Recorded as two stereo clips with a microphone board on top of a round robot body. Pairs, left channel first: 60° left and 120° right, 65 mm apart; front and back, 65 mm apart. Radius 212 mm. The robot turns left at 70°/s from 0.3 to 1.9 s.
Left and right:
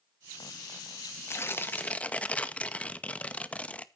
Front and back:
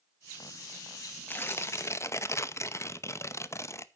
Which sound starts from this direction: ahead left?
Tearing paper, at 1.3 s.